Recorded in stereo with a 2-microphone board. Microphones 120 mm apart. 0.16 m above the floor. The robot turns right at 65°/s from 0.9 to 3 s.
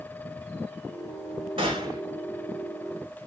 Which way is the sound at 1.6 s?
50° right (ahead or behind).